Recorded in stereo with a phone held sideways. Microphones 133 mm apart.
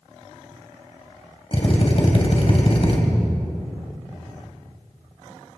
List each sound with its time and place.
1.5 s a drill: 45° left (ahead or behind), 3 m